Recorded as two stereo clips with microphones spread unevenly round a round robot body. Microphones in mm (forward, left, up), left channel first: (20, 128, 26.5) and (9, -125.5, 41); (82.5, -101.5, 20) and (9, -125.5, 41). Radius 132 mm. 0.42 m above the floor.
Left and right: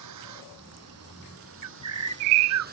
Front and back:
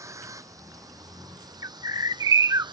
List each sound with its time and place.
0.0 s a vehicle: 115° right; by 2.7 s 150° right
1.6 s a bird: 125° right